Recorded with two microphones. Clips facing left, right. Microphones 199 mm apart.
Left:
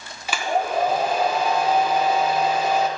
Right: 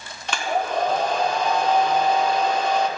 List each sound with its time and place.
0.3 s a hair dryer: 5° left (ahead or behind), 0.8 m